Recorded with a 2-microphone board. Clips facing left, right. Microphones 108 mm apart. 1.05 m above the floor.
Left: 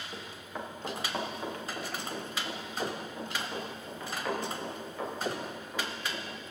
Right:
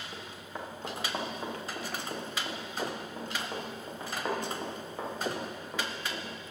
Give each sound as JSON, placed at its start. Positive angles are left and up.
{"t": 0.1, "sound": "running footsteps", "side_deg": 0, "distance_m": 3.5}